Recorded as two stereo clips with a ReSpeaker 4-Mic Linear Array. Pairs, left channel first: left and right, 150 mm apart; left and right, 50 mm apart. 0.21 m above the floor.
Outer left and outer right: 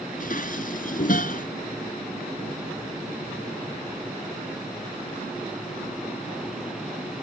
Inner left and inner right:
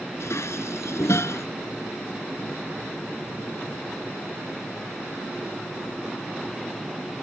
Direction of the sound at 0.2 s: 65° left (ahead or behind).